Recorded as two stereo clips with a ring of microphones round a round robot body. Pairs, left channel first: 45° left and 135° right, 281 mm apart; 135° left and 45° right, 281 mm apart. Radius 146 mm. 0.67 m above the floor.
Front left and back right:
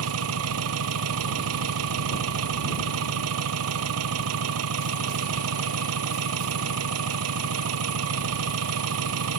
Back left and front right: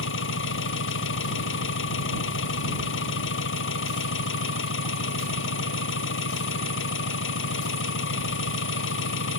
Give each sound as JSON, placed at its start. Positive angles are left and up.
{"t": 0.0, "sound": "an engine running", "azimuth_deg": -175}